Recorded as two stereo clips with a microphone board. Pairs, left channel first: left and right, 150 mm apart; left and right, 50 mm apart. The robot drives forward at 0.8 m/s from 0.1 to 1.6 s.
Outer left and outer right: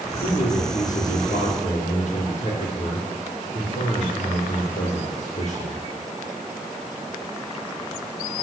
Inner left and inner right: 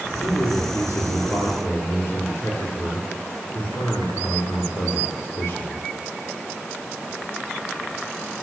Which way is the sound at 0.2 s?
55° left (ahead or behind).